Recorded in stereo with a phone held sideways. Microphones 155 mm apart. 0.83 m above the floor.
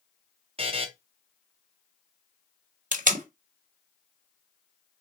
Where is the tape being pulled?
60° right (ahead or behind), 1.1 m.